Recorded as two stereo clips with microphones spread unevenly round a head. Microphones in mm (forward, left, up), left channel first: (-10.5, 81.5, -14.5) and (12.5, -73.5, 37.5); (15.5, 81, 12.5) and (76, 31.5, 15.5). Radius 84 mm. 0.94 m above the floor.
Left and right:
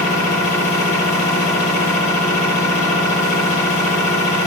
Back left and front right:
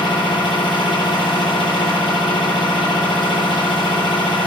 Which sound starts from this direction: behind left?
A machine running, at 0.0 s.